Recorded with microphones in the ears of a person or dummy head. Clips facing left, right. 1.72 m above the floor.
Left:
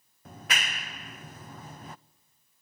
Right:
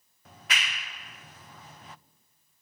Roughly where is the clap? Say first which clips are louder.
Left 2 dB; left.